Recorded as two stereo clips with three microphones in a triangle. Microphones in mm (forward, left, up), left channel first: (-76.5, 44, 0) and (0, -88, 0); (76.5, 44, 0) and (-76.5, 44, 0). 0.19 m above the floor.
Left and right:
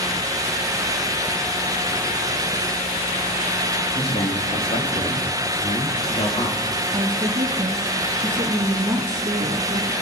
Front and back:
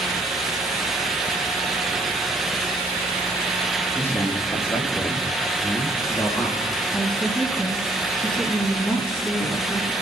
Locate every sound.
4.0 s a man speaking: 70° left, 5.5 m; by 6.6 s 65° left, 7 m
6.9 s a woman speaking: 70° right, 1.3 m